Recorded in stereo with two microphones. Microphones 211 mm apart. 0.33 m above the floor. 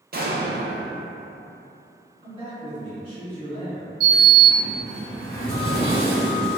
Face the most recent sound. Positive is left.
turn(degrees=-30)  # may be behind; listen again after turning